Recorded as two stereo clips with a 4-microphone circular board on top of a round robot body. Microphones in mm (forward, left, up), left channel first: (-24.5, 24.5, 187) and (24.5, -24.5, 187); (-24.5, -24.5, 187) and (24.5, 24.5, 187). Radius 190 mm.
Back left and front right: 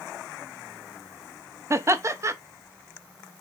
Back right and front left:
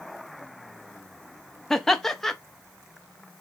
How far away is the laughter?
About 1.0 m.